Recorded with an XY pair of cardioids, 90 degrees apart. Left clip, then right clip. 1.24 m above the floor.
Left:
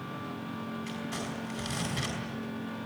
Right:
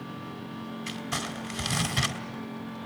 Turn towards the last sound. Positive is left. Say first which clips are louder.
# right 8 dB
turn(degrees=-65)